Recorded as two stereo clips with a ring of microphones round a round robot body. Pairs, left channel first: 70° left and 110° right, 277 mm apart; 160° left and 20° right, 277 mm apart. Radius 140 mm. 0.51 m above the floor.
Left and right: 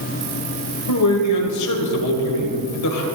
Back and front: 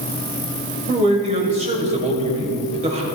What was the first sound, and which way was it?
A man speaking, 45° left.